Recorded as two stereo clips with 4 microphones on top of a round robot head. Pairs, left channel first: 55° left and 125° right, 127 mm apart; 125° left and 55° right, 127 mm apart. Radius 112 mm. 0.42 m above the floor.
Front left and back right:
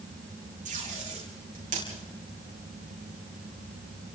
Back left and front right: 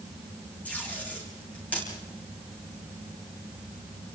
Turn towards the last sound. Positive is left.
turn(degrees=-155)